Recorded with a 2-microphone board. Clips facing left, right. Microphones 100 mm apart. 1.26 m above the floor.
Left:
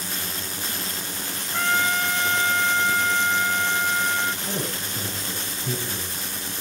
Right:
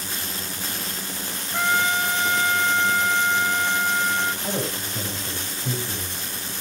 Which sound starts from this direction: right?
A man speaking, at 4.4 s.